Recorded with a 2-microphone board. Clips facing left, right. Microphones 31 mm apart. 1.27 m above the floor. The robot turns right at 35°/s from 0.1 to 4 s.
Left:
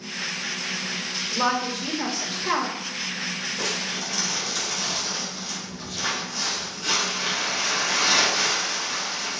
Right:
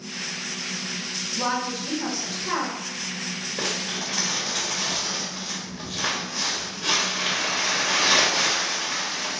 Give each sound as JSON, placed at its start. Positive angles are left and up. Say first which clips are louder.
{"t": 1.3, "sound": "a woman speaking", "louder": "left 2 dB", "azimuth_deg": 90, "distance_m": 1.7}
{"t": 3.6, "sound": "crumpling", "louder": "right 3 dB", "side_deg": -60, "distance_m": 2.5}